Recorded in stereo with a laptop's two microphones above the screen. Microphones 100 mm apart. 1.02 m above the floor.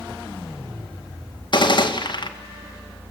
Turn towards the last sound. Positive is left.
turn(degrees=50)  # may be behind; listen again after turning